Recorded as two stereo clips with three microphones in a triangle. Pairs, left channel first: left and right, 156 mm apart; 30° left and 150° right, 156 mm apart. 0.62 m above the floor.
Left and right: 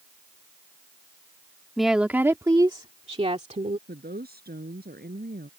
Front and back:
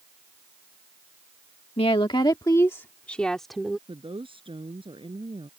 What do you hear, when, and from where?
1.8 s a woman speaking: straight ahead; by 3.8 s 65° right
3.9 s a woman speaking: 95° right